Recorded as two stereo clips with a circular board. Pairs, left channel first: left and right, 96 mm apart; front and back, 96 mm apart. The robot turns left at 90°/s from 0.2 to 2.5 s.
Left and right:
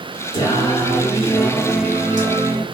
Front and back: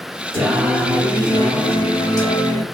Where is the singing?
120° left, 1.9 m; by 2.6 s 75° right, 1.9 m.